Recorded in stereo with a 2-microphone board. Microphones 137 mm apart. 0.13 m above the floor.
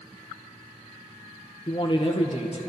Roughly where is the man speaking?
Left.